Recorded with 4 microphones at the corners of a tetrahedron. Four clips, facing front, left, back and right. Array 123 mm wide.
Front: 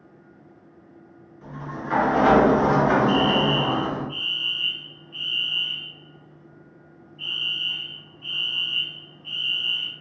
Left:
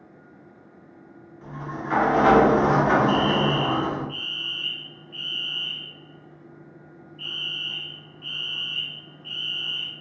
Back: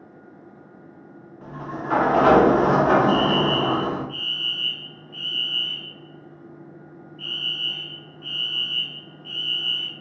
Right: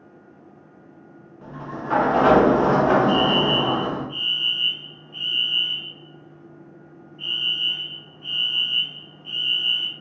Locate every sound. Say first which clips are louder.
1.4 s a sliding door: right 1 dB, back 2 dB; 140° right, 0.5 m
3.1 s a fire alarm: right 2 dB, back 1 dB; 160° left, 1.4 m